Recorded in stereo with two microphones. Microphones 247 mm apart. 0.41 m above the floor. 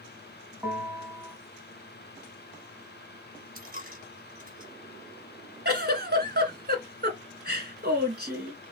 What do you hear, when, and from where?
0.6 s a bell: 5° right (ahead or behind), 1.5 m
3.5 s a dropped coin: 35° right (ahead or behind), 1.8 m
5.7 s a giggle: 40° right (ahead or behind), 1.2 m